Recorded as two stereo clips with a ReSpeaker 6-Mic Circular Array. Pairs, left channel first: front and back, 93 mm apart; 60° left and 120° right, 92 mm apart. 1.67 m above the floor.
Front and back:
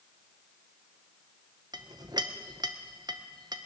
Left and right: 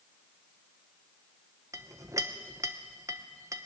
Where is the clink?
165° right, 0.9 m.